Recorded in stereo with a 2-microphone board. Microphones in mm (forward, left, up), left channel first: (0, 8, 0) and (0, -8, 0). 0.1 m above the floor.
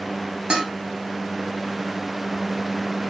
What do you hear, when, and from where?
0.5 s dishes clattering: 70° right (ahead or behind), 4 m